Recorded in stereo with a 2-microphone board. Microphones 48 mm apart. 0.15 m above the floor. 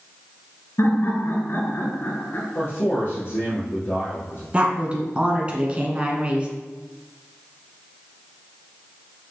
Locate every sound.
0.8 s laughter: 55° left (ahead or behind), 1.7 m; by 2.5 s 35° left (ahead or behind), 1.6 m
2.5 s a man speaking: 50° left (ahead or behind), 3.5 m
4.5 s a woman speaking: 25° right (ahead or behind), 1.6 m